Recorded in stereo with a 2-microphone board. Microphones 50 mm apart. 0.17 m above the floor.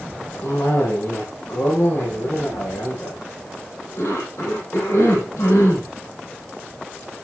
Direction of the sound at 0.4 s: 75° left (ahead or behind).